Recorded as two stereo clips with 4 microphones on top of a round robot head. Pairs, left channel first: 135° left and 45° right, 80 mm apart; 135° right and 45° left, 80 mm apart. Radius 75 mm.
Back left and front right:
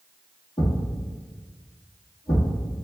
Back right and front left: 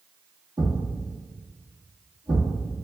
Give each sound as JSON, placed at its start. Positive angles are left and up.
{"t": 0.6, "sound": "a thud", "azimuth_deg": 95, "distance_m": 1.9}